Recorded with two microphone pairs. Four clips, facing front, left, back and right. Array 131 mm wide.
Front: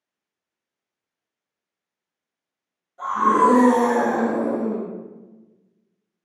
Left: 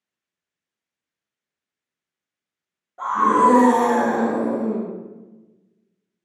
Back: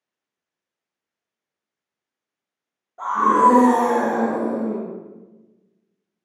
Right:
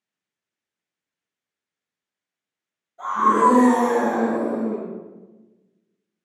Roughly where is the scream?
Behind left.